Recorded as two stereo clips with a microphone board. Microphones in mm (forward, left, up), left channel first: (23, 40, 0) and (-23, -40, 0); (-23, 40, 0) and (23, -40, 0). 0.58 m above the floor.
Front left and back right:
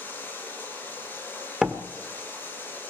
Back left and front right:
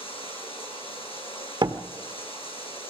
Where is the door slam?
40° right, 1.5 m.